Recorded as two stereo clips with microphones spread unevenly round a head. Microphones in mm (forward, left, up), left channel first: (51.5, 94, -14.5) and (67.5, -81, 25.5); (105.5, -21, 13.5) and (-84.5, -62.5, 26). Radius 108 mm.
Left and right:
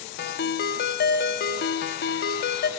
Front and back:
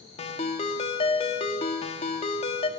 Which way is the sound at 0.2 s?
75° left.